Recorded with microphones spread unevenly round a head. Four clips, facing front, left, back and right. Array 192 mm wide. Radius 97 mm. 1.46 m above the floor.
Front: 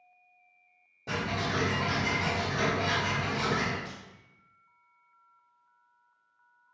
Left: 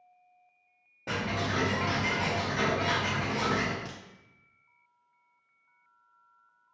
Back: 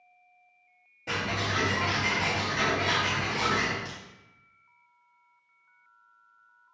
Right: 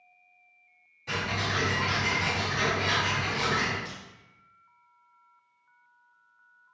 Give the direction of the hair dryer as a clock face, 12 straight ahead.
No hair dryer in this recording.